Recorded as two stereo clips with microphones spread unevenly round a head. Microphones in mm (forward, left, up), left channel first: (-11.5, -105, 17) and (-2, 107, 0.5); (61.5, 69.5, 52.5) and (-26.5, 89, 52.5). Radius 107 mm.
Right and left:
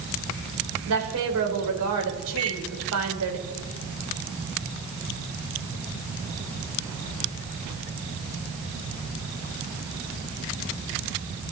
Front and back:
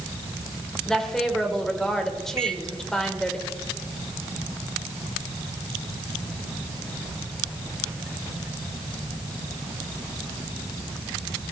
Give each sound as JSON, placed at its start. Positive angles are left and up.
{"t": 0.9, "sound": "a woman speaking", "azimuth_deg": 70, "distance_m": 3.5}
{"t": 2.4, "sound": "a microwave", "azimuth_deg": 110, "distance_m": 2.5}